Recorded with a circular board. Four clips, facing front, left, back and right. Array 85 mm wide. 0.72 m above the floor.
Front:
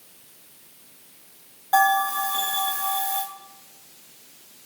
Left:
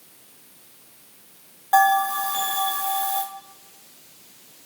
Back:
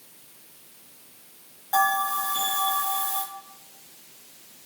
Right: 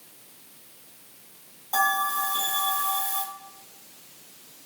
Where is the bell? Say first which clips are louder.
Left 7 dB, front 3 dB; 60° left, 2.5 m.